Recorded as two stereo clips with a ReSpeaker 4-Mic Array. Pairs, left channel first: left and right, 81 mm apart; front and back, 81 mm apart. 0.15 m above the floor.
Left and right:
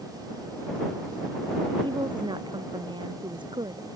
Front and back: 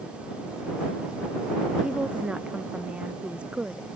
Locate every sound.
1.8 s a woman speaking: 105° right